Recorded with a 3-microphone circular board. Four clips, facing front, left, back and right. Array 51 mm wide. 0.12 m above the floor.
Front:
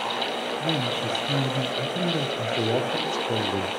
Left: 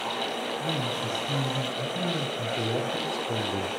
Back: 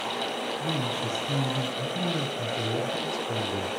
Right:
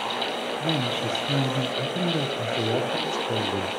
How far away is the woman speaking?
About 3.5 m.